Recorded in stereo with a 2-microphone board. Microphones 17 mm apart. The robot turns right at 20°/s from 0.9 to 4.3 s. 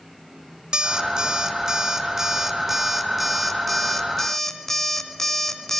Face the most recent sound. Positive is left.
turn(degrees=15)